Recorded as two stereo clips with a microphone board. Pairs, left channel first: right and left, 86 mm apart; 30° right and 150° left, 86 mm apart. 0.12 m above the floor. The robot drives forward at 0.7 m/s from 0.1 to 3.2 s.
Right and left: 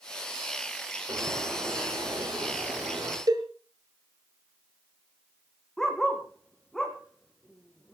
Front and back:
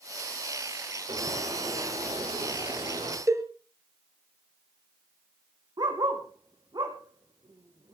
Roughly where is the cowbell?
Left.